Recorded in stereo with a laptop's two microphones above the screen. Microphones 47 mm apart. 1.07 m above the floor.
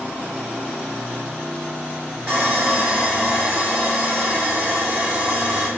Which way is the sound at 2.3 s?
45° right (ahead or behind).